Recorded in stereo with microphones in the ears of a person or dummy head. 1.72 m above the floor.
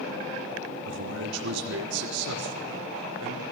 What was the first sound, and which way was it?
A man speaking, 80° right.